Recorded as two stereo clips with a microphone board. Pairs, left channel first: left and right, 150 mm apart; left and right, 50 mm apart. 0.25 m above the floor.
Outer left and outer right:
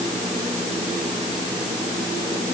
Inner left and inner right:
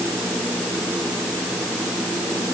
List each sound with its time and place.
Only background noise.